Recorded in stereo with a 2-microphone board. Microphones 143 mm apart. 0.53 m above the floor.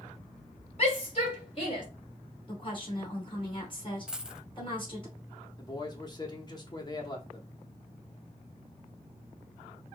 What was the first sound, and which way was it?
A shout, 50° left (ahead or behind).